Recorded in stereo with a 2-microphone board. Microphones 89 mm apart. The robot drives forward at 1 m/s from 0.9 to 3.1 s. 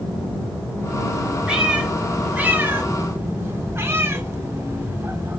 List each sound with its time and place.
1.5 s a cat meowing: 10° right (ahead or behind), 1.7 m; by 5.4 s 30° right (ahead or behind), 0.7 m